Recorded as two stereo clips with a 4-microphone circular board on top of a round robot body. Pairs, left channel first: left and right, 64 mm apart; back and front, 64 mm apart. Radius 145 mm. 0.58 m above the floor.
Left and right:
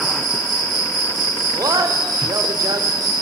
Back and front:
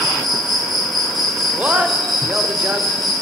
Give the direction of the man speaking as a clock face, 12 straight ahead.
2 o'clock.